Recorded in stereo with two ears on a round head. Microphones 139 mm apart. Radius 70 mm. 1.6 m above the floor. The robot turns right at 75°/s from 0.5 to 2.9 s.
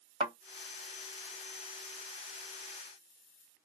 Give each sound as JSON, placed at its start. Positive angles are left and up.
{"t": 0.2, "sound": "a thud", "side_deg": -35, "distance_m": 1.8}